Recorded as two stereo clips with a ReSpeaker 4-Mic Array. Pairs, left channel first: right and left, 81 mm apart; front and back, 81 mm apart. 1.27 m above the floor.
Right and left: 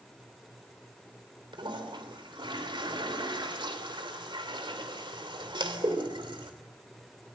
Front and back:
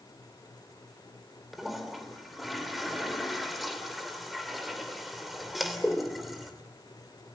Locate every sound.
1.5 s a toilet flushing: 90° left, 2.5 m